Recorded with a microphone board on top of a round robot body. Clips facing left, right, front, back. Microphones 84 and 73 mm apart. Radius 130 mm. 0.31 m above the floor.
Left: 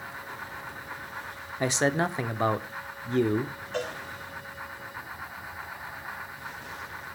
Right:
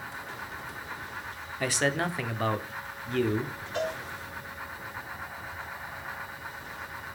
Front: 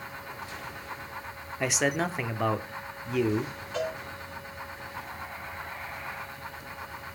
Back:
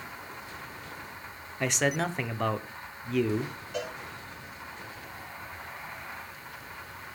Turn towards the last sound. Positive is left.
turn(degrees=100)